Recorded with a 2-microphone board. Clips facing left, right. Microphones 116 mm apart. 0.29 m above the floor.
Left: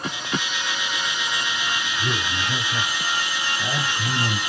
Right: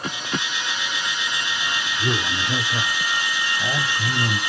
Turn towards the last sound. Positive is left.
turn(degrees=0)  # may be behind; listen again after turning